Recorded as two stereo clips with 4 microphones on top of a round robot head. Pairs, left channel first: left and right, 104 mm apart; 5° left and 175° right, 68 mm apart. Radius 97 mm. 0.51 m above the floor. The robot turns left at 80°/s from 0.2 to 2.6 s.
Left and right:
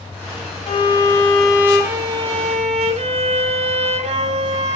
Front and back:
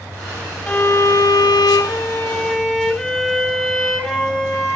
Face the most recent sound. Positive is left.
turn(degrees=-85)